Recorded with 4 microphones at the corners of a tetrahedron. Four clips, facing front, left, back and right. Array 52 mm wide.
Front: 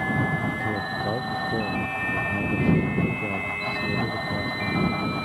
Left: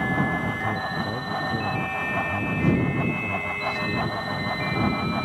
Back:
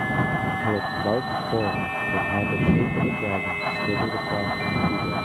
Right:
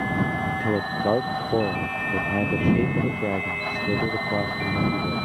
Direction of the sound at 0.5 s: 120° right.